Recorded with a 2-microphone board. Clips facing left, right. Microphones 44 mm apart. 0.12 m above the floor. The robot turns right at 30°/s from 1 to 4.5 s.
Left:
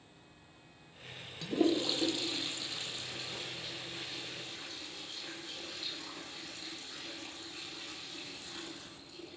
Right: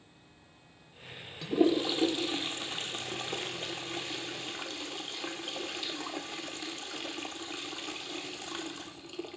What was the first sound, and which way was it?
A toilet flushing, 5° right (ahead or behind).